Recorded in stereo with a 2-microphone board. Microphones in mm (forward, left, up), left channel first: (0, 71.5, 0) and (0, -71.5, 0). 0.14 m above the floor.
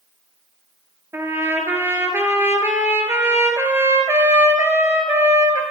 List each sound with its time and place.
1.1 s a trumpet: 15° right (ahead or behind), 1.0 m